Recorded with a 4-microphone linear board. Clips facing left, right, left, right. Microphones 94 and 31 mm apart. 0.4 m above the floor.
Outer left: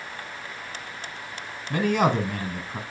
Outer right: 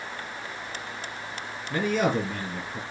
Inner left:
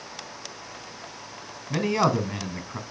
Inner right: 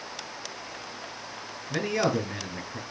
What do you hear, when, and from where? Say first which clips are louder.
1.7 s a man speaking: outer left 3 dB, inner left 3 dB; 70° left (ahead or behind), 3 m